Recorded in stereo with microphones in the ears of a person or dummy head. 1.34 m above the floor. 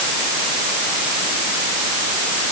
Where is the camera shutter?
No camera shutter in this recording.